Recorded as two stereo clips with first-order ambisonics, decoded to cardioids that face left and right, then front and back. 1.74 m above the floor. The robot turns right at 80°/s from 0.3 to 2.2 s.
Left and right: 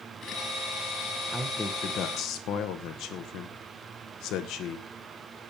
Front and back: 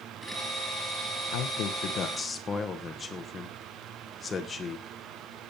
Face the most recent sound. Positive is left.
turn(degrees=70)